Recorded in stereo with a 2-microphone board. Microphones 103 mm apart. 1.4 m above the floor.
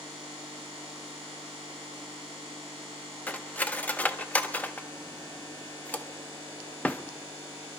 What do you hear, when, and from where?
3.3 s cutlery clinking: 15° left (ahead or behind), 0.6 m